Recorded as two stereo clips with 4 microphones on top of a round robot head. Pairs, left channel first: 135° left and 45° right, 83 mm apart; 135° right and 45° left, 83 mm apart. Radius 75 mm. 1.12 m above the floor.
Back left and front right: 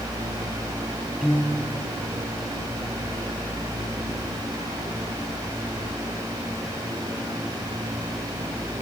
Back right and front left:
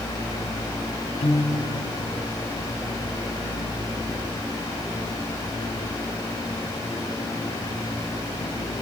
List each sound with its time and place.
1.2 s a piano: 130° right, 3 m